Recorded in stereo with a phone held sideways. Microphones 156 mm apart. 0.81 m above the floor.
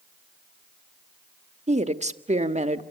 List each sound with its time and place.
1.7 s a woman speaking: 45° right (ahead or behind), 1.4 m